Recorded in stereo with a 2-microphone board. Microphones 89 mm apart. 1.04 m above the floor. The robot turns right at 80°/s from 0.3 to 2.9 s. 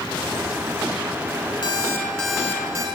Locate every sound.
1.6 s an alarm clock: 125° left, 7.5 m; by 2.9 s 135° right, 7.5 m